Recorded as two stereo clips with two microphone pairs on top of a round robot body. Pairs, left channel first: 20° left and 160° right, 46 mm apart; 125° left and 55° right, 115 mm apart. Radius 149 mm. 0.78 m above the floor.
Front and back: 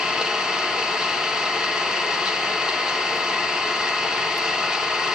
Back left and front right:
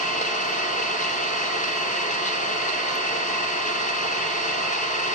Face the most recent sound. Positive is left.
turn(degrees=125)